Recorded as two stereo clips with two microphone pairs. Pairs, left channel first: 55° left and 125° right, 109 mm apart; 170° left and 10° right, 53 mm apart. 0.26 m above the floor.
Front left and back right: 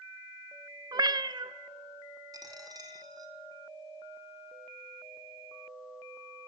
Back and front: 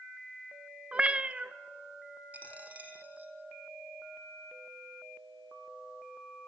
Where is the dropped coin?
70° right, 2 m.